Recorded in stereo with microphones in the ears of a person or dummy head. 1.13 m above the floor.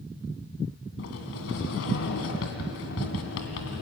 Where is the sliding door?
70° left (ahead or behind), 2.5 m.